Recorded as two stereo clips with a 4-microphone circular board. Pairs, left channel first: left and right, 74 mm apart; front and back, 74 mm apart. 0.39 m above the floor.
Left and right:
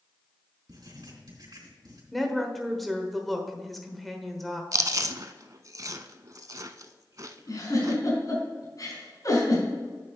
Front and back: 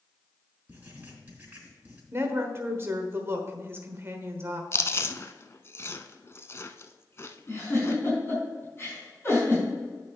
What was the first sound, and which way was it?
Writing, 110° right.